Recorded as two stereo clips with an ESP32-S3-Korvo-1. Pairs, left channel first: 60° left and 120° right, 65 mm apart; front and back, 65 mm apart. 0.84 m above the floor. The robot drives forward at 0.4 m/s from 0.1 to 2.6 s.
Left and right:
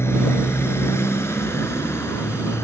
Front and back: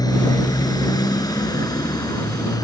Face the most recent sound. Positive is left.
turn(degrees=15)